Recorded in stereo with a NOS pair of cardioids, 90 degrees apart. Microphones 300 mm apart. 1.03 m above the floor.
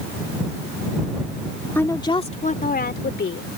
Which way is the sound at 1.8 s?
5° left.